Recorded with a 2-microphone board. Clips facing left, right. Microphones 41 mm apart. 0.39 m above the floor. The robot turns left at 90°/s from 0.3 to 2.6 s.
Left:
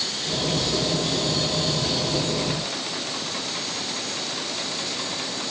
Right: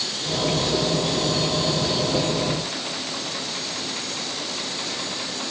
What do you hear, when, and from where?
Only background noise.